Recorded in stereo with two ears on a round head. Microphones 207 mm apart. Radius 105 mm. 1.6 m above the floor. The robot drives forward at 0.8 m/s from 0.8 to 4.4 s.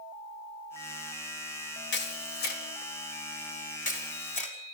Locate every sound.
1.9 s a camera shutter: 50° left (ahead or behind), 3.5 m; by 4.5 s 35° left (ahead or behind), 5 m